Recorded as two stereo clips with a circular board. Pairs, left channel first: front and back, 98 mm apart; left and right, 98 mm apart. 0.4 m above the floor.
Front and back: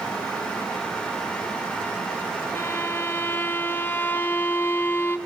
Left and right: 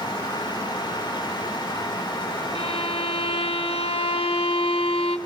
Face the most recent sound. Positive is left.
turn(degrees=70)